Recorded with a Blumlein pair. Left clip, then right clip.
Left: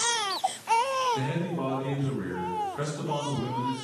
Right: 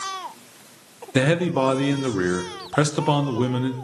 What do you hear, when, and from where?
1.1 s a man speaking: 50° right, 0.7 m